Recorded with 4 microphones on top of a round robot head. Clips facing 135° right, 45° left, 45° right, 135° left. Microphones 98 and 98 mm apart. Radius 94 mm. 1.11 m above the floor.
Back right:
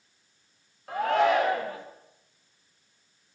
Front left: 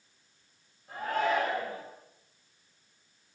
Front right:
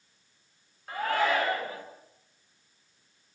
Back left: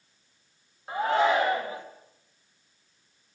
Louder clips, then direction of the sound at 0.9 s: Back right 6 dB, back left 4 dB; 155° right.